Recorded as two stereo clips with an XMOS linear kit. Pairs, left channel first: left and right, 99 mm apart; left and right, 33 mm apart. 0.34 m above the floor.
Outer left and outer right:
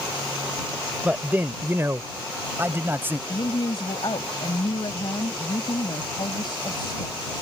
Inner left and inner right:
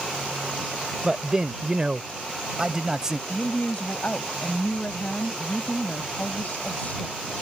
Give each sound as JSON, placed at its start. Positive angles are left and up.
{"t": 1.0, "sound": "a man speaking", "side_deg": -15}
{"t": 3.3, "sound": "a woman speaking", "side_deg": 55}